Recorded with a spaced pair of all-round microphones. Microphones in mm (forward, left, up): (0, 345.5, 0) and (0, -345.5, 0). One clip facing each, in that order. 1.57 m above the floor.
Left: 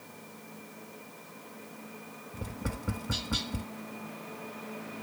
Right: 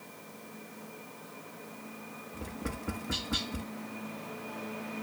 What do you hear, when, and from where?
2.3 s tapping: 25° left (ahead or behind), 1.0 m